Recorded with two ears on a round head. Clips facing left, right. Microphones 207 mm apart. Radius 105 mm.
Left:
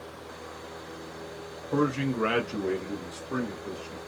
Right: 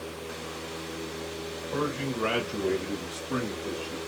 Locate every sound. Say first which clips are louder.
1.7 s a man speaking: left 5 dB; 40° left (ahead or behind), 1.0 m; by 4.0 s 45° right (ahead or behind), 1.3 m